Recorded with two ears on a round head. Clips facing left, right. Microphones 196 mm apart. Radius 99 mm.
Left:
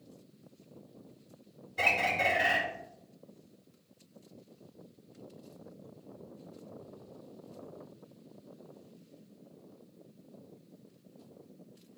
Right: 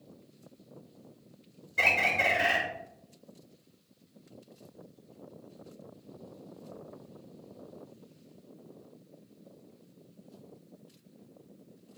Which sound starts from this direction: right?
A bird, at 1.8 s.